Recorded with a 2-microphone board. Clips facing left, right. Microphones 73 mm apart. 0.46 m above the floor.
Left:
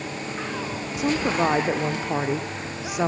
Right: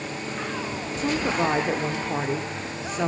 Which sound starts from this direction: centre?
A woman speaking, at 1.0 s.